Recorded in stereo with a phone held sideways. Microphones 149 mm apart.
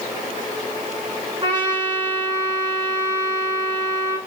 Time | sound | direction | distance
1.4 | a trumpet | 30° right (ahead or behind) | 5.5 m